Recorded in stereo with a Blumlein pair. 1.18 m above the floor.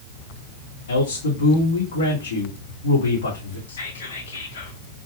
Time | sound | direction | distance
0.9 | a man speaking | 65° left | 2 m
3.7 | whispering | 65° left | 1.8 m